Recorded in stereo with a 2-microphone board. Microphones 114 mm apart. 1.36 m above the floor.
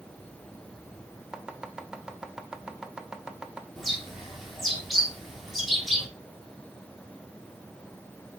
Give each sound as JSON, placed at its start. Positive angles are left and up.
{"t": 1.3, "sound": "chopping", "side_deg": -5, "distance_m": 0.9}
{"t": 3.8, "sound": "a bird", "side_deg": 0, "distance_m": 3.5}